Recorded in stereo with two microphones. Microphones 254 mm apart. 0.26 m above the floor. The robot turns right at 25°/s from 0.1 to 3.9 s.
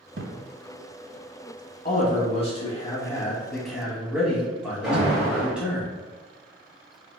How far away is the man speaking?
About 1.6 m.